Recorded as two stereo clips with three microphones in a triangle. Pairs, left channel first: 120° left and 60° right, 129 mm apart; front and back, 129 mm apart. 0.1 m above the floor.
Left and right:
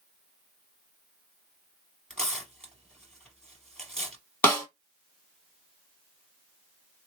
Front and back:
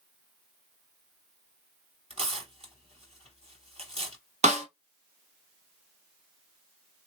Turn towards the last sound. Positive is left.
turn(degrees=-165)